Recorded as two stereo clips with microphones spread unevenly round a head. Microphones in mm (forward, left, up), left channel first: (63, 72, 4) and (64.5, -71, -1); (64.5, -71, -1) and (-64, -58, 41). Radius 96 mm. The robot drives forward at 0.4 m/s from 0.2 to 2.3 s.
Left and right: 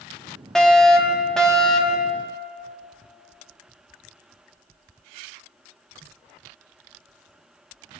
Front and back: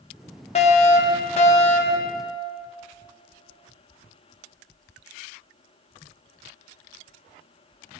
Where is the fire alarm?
5° left, 4 m.